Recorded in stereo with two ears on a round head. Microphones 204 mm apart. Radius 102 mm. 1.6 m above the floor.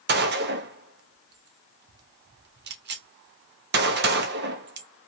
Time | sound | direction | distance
0.1 | a gunshot | 45° right (ahead or behind) | 0.5 m